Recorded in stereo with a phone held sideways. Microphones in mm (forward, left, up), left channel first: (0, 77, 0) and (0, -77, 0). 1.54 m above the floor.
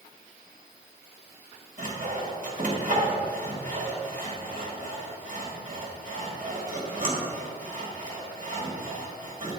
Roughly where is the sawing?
Right.